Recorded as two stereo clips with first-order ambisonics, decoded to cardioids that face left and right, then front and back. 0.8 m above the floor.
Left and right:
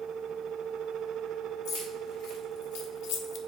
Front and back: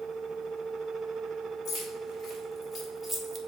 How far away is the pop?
I don't hear a pop.